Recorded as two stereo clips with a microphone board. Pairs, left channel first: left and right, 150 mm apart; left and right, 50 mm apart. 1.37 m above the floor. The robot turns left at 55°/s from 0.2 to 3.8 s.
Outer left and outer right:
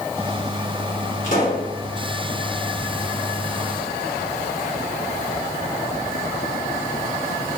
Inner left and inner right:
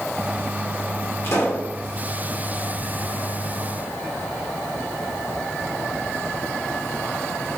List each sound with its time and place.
1.2 s a pop: 50° left (ahead or behind), 1.9 m; by 1.7 s 75° left (ahead or behind), 1.9 m